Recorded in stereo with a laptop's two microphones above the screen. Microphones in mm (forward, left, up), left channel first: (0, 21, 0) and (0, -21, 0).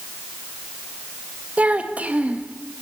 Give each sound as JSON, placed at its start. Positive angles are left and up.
{"t": 1.6, "sound": "a child speaking", "side_deg": -30, "distance_m": 0.7}